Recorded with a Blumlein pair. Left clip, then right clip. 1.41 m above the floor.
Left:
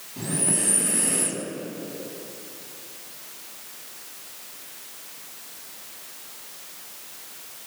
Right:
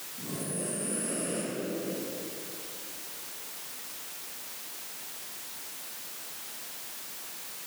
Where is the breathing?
45° left, 4.5 m.